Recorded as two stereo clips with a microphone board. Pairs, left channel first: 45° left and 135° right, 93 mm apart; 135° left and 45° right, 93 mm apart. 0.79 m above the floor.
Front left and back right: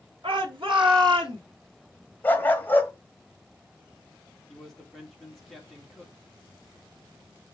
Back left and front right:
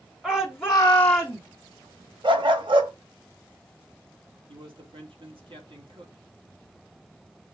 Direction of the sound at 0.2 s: 130° right.